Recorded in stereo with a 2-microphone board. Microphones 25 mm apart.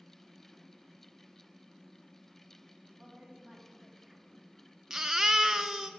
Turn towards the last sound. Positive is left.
turn(degrees=-25)  # may be behind; listen again after turning